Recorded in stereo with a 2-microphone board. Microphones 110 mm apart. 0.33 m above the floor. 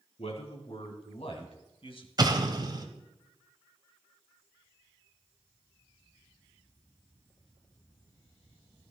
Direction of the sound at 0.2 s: 70° left (ahead or behind).